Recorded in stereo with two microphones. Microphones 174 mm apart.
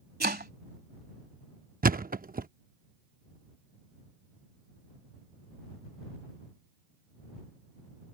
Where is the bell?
No bell in this recording.